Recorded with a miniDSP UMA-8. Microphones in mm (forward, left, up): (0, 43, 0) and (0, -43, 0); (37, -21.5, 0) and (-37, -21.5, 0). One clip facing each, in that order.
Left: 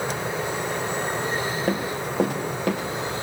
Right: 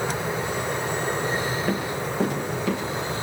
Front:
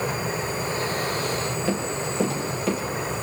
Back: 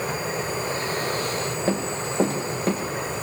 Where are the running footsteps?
125° left, 8.5 m; by 2.8 s 130° left, 9.5 m.